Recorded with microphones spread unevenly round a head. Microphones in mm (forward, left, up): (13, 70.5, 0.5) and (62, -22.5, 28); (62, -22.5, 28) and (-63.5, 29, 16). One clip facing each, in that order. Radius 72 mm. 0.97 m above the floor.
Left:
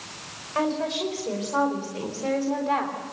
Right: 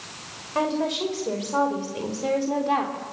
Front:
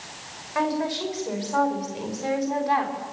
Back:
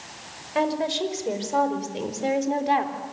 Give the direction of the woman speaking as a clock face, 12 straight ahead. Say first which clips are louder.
Right 1 dB, back 1 dB; 5 o'clock.